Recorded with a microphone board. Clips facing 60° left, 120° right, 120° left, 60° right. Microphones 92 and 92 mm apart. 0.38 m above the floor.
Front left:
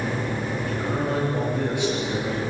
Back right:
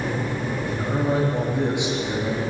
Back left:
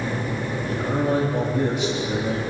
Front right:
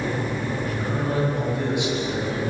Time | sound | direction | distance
0.7 | a man speaking | 175° left | 10 m